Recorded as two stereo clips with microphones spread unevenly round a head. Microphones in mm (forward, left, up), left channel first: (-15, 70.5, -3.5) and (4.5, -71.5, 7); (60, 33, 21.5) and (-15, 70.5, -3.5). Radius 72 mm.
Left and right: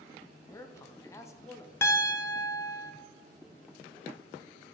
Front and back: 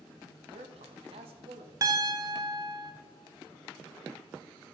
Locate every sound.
0.5 s a man speaking: 170° left, 0.7 m
1.8 s a piano: 150° left, 0.7 m